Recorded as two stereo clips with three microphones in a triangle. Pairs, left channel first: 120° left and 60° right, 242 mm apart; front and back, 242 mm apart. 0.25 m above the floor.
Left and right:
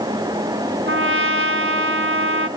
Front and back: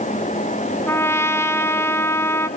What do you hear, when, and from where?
0.9 s a trumpet: 80° right, 1.3 m